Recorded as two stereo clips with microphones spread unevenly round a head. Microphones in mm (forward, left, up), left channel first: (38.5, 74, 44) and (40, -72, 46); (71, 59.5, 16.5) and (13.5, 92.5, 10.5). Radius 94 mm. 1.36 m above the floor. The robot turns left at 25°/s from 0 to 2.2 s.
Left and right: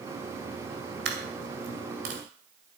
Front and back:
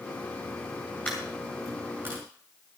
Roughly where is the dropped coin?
Right.